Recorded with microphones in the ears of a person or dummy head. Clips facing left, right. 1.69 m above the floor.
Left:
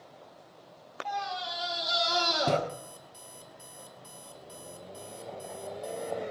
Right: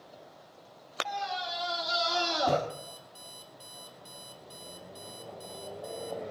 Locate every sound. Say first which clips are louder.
1.1 s a scream: left 1 dB; 5° left (ahead or behind), 2.5 m; by 2.6 s 30° left (ahead or behind), 1.6 m
2.7 s an alarm clock: even; 55° left (ahead or behind), 1.7 m